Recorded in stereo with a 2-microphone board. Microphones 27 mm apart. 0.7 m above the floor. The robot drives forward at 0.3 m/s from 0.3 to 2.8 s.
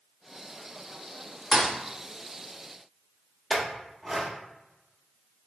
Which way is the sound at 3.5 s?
Centre (ahead or behind).